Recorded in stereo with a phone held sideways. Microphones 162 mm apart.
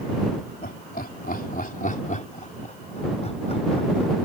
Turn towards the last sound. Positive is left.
turn(degrees=35)  # may be behind; listen again after turning